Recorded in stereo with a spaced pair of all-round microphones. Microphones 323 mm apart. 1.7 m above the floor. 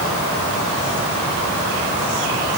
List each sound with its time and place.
Only background noise.